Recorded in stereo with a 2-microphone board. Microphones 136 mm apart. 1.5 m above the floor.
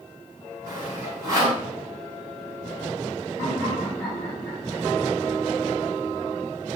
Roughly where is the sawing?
Right.